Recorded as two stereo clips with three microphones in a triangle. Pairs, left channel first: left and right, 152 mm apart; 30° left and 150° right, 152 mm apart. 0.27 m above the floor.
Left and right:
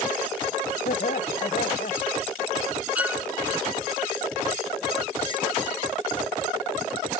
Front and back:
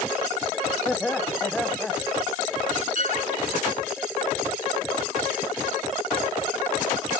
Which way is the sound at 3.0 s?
170° right.